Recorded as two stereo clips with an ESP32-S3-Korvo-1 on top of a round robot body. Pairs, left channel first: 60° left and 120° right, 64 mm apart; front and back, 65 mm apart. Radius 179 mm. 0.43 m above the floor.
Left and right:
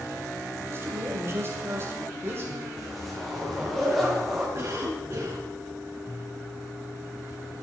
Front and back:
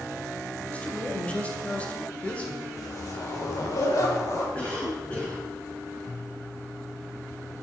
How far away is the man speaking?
About 2.5 m.